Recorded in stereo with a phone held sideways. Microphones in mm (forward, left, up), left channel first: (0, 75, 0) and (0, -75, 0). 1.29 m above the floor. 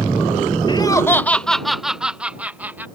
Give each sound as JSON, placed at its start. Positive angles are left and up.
{"t": 0.7, "sound": "laughter", "side_deg": 30}